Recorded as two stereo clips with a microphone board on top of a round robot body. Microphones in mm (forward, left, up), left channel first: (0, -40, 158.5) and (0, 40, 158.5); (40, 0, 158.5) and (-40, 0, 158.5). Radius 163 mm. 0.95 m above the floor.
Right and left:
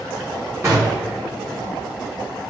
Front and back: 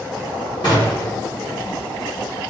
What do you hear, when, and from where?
0.6 s a gunshot: 30° left, 0.6 m